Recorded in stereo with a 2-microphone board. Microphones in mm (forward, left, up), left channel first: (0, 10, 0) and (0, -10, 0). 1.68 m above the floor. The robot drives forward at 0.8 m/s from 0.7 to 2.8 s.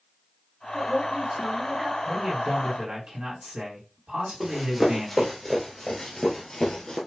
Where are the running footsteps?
15° right (ahead or behind), 2.0 m; by 7.0 s 40° left (ahead or behind), 2 m.